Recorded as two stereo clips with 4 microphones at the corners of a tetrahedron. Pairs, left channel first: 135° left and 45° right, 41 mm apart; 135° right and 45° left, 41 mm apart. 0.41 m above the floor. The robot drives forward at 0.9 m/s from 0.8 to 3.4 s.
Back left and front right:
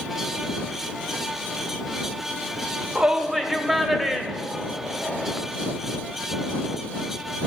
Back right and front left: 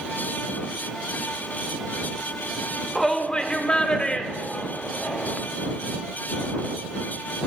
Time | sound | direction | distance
3.0 | a shout | 45° right | 0.8 m